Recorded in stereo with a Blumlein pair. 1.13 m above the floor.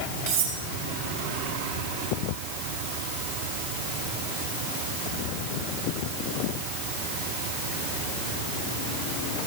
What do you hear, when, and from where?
0.3 s cutlery clinking: 55° right, 3 m